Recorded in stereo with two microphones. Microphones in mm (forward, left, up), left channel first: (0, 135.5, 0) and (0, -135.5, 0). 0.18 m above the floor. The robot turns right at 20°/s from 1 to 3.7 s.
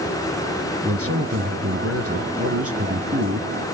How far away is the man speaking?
About 2 m.